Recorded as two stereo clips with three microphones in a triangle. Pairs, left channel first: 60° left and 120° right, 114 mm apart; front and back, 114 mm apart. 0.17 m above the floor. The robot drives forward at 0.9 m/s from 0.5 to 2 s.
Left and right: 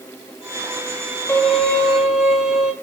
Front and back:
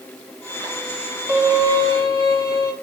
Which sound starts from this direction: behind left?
A violin, at 1.3 s.